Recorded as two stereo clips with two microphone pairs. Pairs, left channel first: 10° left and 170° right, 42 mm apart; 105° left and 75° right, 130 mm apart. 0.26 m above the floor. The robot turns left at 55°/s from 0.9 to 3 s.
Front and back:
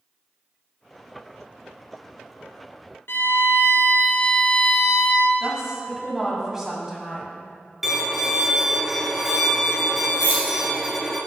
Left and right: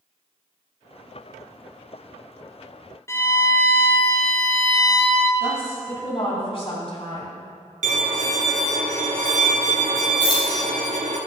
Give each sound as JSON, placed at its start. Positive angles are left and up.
{"t": 3.1, "sound": "a violin", "azimuth_deg": 40, "distance_m": 0.9}
{"t": 5.4, "sound": "a woman speaking", "azimuth_deg": 115, "distance_m": 2.0}
{"t": 7.8, "sound": "a violin", "azimuth_deg": -85, "distance_m": 0.8}
{"t": 10.2, "sound": "keys jangling", "azimuth_deg": 155, "distance_m": 2.5}